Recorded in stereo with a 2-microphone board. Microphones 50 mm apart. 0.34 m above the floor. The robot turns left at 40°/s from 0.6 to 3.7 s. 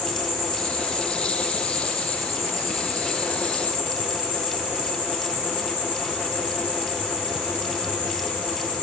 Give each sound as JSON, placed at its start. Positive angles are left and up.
{"t": 0.0, "sound": "an insect", "azimuth_deg": 155, "distance_m": 4.5}